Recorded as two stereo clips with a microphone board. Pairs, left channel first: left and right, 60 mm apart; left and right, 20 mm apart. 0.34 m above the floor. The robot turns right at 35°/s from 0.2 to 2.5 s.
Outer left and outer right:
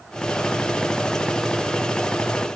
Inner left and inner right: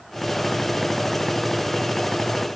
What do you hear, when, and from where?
Only background noise.